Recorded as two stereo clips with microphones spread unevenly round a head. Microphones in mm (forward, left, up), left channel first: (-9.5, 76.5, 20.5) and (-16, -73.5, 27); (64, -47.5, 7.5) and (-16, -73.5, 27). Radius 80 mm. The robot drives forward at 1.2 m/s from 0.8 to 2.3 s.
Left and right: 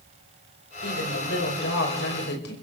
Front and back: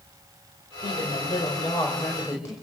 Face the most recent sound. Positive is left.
turn(degrees=90)